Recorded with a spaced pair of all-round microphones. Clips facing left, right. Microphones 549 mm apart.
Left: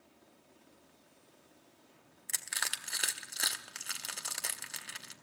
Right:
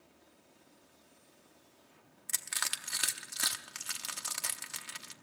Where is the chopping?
I don't hear chopping.